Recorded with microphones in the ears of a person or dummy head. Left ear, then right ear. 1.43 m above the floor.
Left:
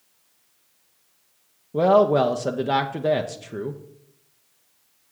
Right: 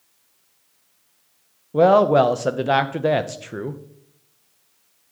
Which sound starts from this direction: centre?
A woman speaking, at 1.7 s.